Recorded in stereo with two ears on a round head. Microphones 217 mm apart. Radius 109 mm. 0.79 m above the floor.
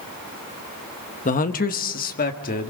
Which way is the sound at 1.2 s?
35° left (ahead or behind).